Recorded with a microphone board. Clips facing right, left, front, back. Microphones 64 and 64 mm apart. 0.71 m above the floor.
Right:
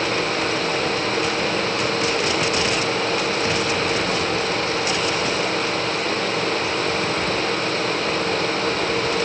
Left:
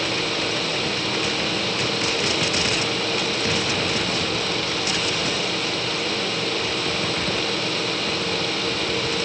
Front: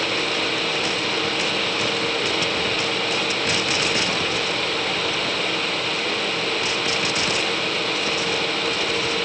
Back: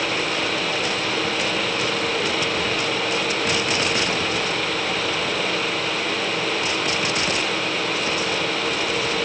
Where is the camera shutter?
No camera shutter in this recording.